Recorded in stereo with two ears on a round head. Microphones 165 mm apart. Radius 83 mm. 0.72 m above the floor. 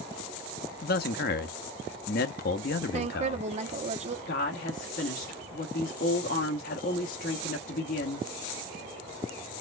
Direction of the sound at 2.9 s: 40° right (ahead or behind).